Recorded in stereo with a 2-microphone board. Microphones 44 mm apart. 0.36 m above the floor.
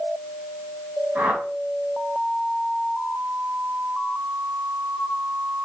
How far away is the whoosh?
About 3 m.